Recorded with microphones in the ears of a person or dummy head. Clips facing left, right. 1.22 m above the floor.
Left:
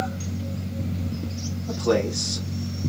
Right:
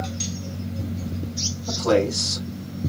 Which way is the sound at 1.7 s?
80° right.